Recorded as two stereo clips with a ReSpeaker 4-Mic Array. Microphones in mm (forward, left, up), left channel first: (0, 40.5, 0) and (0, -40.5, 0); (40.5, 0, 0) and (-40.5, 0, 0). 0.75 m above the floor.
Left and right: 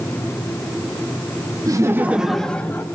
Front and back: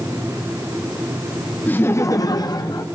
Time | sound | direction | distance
1.7 | laughter | 65° right | 0.7 m